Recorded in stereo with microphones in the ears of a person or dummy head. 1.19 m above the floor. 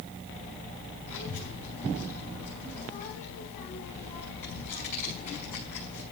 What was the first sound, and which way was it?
A child speaking, 45° left (ahead or behind).